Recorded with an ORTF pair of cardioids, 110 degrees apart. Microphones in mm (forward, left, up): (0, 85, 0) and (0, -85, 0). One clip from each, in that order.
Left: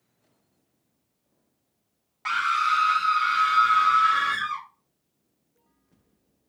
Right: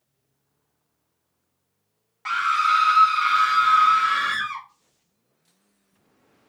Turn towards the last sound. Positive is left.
turn(degrees=-40)